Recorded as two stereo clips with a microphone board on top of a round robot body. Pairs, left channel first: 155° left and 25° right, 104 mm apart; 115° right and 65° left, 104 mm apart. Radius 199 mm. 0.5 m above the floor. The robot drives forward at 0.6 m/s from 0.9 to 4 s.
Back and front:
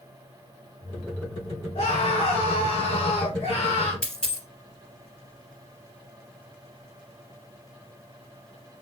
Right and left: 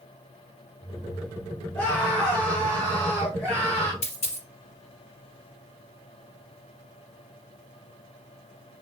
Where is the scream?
175° left, 5 m.